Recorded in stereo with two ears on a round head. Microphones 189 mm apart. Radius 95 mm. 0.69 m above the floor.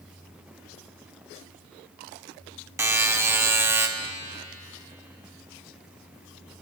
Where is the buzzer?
10° right (ahead or behind), 0.7 m.